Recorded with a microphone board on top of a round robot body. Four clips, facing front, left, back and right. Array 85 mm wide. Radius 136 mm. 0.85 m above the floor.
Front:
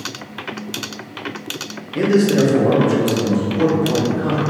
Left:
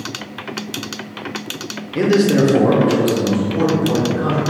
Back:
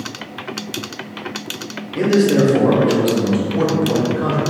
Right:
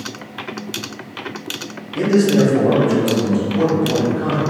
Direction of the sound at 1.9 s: 75° left.